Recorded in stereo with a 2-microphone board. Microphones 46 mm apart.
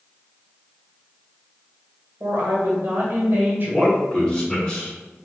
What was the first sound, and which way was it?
A woman speaking, 55° right (ahead or behind).